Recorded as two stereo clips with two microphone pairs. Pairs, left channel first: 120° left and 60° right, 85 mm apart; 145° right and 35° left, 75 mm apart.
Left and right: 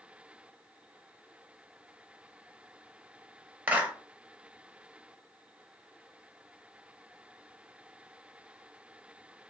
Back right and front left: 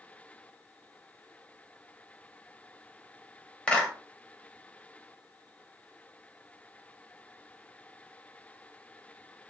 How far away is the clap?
About 0.7 m.